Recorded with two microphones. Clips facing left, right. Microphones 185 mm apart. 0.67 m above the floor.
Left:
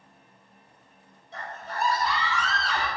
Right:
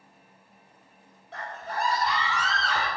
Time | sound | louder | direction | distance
1.3 | a scream | right 1 dB | 60° right (ahead or behind) | 2.5 m